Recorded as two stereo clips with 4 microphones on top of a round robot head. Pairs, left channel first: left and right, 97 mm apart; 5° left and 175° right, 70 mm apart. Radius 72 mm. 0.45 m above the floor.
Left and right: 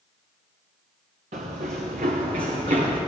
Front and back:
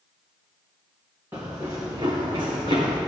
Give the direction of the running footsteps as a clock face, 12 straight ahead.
3 o'clock.